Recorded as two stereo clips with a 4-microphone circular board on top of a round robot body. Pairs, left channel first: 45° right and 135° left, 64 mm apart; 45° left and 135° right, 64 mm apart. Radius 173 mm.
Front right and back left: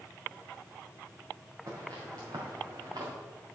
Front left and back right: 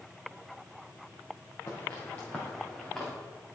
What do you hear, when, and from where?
1.7 s footsteps: 105° left, 2.5 m; by 3.1 s 130° left, 3 m